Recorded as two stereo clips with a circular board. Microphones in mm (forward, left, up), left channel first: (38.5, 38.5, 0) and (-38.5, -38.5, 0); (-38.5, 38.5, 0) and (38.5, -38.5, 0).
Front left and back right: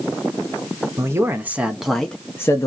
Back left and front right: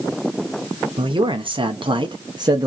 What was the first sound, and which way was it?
A man speaking, 75° right.